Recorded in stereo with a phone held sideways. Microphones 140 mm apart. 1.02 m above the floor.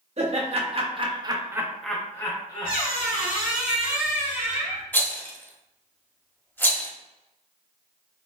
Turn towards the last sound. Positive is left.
turn(degrees=15)  # may be behind; listen again after turning